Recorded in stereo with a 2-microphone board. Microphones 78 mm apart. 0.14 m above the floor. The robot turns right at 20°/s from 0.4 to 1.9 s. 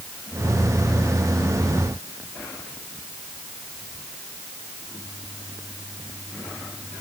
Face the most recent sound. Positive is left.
No sound to turn to.